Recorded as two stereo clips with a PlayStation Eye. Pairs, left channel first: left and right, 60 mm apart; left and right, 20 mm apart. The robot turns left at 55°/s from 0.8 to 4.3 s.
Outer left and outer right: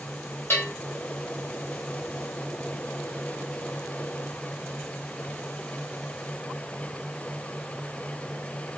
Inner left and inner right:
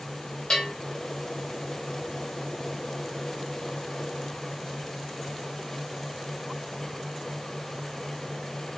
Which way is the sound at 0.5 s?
40° left (ahead or behind).